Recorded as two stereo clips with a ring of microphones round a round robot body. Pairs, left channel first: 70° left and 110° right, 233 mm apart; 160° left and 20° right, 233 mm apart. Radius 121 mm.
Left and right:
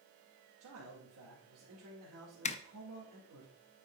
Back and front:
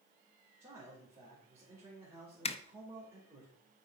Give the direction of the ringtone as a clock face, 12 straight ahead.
No ringtone in this recording.